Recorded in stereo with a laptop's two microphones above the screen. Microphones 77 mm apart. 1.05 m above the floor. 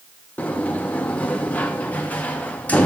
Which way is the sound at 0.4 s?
20° left (ahead or behind).